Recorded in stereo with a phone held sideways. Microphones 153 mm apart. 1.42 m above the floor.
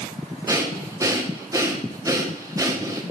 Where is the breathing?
20° right (ahead or behind), 1.4 m.